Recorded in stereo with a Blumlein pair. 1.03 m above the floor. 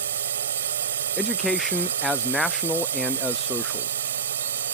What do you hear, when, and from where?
0.0 s a drone: 65° right
1.2 s a man speaking: 5° left